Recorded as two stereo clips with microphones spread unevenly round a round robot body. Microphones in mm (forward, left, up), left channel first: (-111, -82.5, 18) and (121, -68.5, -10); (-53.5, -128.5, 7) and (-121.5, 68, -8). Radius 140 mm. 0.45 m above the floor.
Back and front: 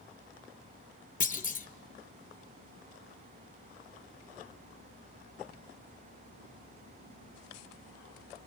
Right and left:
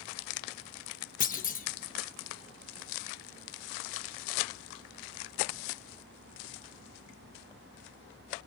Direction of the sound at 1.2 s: 120° right.